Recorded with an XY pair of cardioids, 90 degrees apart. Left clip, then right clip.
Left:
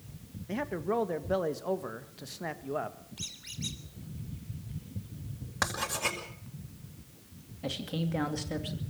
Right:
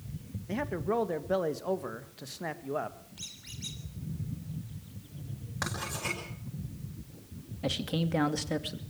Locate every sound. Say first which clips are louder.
0.5 s a man speaking: even; 5° right, 2 m
3.2 s a squeak: left 3 dB; 20° left, 3.5 m
5.6 s writing: left 4 dB; 40° left, 9.5 m
7.6 s a man speaking: right 3 dB; 35° right, 2 m